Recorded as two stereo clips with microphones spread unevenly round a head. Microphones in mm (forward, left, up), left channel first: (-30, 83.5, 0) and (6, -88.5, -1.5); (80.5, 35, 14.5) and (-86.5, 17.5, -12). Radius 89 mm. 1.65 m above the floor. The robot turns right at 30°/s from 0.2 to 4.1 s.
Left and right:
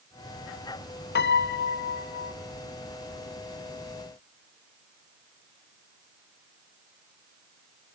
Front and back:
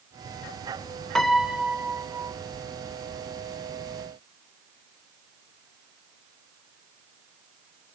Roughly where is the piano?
Left.